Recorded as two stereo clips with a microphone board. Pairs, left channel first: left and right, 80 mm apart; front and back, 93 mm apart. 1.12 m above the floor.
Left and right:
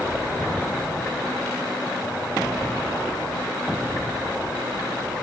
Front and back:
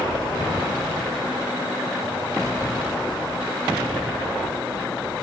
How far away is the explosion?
About 8 m.